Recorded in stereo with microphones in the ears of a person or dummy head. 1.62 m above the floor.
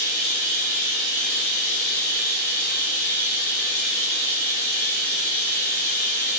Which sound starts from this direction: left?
Running water, at 0.0 s.